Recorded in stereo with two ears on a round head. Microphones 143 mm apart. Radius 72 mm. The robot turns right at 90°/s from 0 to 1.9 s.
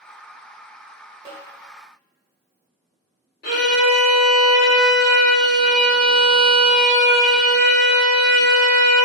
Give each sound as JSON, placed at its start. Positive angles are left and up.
{"t": 1.2, "sound": "a snare drum", "side_deg": -25, "distance_m": 1.1}
{"t": 3.4, "sound": "a violin", "side_deg": 65, "distance_m": 1.5}